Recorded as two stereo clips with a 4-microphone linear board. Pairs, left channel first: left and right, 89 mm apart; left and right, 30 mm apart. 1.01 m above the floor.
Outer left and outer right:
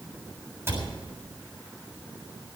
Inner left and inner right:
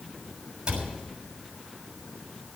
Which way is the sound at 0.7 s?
25° right (ahead or behind).